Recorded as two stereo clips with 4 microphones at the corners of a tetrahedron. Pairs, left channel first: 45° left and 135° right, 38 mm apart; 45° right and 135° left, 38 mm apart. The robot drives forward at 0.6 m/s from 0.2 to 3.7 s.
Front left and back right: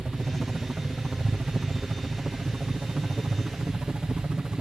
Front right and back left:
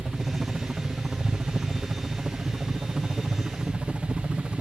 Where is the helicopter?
175° right; by 4.6 s straight behind.